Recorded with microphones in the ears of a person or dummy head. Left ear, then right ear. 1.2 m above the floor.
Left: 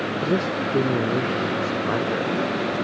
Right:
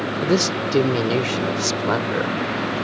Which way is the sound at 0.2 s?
70° right (ahead or behind).